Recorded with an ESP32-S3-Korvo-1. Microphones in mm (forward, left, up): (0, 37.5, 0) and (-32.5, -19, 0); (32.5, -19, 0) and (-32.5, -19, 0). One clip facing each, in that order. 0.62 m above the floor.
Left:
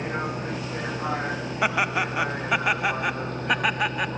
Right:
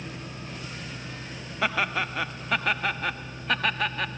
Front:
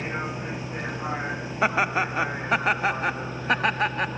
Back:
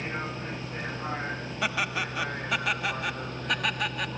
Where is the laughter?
Straight ahead.